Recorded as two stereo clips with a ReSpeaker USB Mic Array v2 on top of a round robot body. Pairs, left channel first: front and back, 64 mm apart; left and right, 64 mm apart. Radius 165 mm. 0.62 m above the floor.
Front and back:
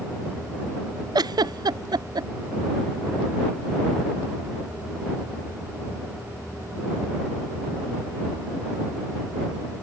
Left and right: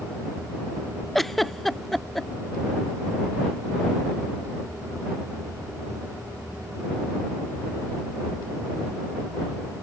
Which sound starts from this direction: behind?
A giggle, at 1.1 s.